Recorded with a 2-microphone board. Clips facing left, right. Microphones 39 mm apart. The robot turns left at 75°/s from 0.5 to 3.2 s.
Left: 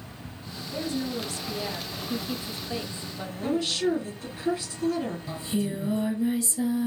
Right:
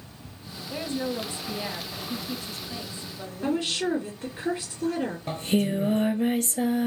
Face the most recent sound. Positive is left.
turn(degrees=-55)  # may be behind; listen again after turning